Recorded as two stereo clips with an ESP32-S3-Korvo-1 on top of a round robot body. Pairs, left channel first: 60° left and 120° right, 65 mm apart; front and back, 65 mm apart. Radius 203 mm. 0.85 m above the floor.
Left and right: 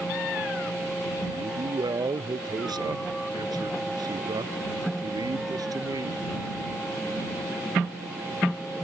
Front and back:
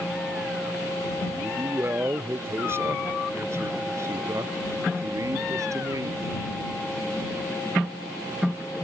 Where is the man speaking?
120° right; by 6.3 s 145° right.